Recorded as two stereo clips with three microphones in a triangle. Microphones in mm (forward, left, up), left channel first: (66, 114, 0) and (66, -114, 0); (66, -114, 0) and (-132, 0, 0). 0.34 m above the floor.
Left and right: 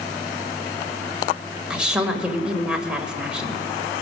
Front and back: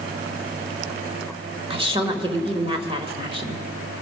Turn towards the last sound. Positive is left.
turn(degrees=-170)